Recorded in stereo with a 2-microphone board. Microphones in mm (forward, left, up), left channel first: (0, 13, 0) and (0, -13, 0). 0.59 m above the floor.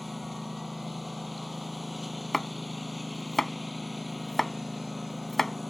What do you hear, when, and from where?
0.0 s a lawn mower: 5° right (ahead or behind)
2.3 s chopping: 5° left (ahead or behind)